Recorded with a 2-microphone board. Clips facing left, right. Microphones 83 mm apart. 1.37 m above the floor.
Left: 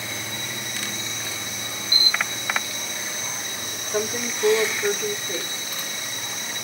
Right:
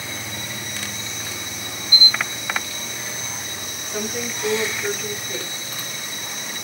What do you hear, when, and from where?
1.9 s a camera shutter: 70° left (ahead or behind), 0.7 m
3.9 s a woman speaking: 35° left (ahead or behind), 1.1 m